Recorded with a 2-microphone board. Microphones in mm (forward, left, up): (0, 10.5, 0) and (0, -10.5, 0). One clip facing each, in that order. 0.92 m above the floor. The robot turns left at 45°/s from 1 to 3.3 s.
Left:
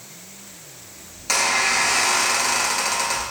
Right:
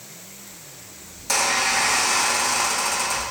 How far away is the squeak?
About 1.1 m.